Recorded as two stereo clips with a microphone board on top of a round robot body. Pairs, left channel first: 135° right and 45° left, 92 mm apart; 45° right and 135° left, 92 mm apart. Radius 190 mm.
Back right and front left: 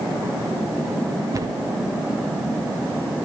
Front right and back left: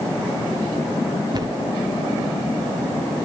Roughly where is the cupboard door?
Left.